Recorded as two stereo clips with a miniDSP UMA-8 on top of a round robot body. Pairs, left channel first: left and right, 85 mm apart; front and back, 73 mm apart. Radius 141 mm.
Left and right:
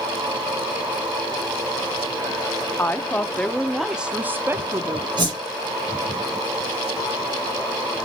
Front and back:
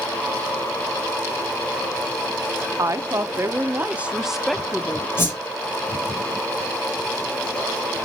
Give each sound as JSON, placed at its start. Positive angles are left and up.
{"t": 2.8, "sound": "a woman speaking", "azimuth_deg": 150, "distance_m": 1.2}
{"t": 5.2, "sound": "a whoosh", "azimuth_deg": -55, "distance_m": 5.0}